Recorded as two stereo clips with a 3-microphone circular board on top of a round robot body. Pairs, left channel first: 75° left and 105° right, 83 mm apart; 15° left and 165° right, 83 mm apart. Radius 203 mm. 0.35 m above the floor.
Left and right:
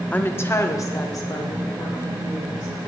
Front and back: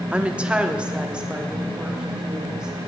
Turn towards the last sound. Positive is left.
turn(degrees=115)